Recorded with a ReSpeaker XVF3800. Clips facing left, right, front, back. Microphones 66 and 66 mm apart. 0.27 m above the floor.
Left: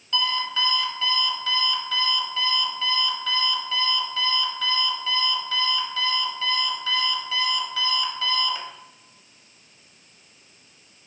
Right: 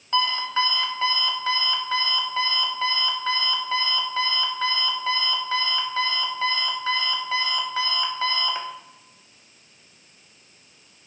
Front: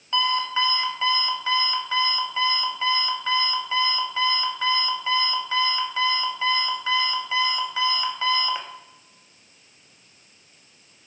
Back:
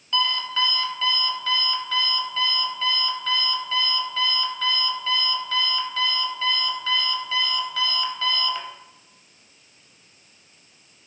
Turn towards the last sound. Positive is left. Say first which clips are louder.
# right 3 dB, front 2 dB
turn(degrees=-60)